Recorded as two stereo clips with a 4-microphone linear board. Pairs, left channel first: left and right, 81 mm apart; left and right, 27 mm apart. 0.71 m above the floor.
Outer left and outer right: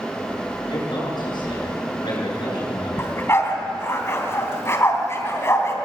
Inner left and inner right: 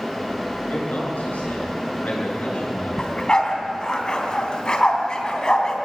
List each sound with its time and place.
0.7 s a man speaking: 65° left (ahead or behind), 9 m
3.0 s a dog barking: 30° left (ahead or behind), 2.5 m